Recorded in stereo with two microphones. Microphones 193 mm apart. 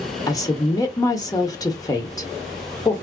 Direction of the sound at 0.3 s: 15° left (ahead or behind).